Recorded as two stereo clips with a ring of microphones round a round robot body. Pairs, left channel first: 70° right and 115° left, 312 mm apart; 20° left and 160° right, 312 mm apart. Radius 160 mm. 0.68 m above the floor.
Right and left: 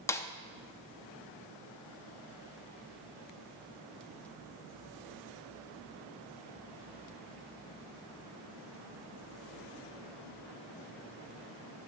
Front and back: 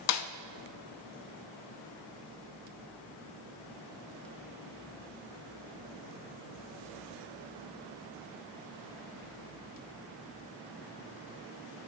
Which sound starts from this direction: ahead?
A snare drum, at 0.1 s.